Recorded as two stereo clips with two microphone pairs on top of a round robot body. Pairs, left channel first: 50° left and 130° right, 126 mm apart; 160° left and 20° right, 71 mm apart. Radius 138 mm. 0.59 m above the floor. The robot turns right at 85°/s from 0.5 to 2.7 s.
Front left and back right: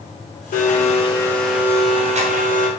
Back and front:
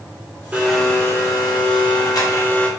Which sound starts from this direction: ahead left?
A blender, at 0.5 s.